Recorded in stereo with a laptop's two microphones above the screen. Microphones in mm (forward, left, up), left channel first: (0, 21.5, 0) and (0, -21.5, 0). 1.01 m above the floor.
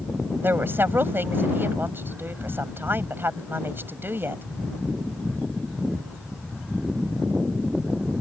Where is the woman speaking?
55° right (ahead or behind).